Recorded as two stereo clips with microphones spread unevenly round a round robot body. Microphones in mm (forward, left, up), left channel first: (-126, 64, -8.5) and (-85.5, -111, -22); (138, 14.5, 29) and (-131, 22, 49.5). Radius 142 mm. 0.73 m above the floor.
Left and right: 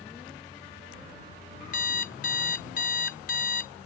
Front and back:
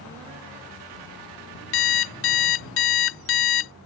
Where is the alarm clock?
40° left.